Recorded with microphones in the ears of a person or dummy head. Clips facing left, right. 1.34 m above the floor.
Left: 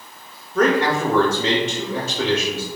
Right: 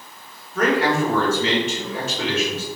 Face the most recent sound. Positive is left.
turn(degrees=75)  # may be behind; listen again after turning